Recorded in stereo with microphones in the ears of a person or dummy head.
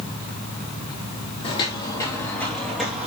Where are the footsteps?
30° left (ahead or behind), 2.5 m; by 3.1 s 10° right (ahead or behind), 2.5 m.